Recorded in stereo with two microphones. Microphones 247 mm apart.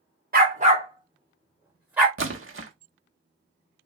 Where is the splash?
55° right (ahead or behind), 0.8 m.